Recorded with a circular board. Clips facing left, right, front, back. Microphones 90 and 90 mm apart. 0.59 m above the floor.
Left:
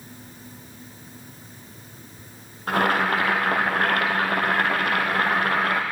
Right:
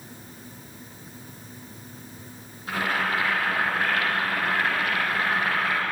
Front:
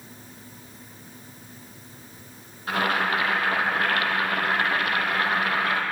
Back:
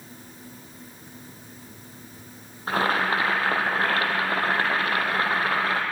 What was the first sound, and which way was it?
Boiling, 120° left.